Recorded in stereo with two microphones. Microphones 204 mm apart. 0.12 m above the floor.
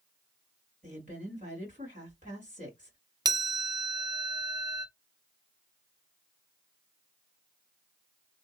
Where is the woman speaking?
40° right (ahead or behind), 1.9 m.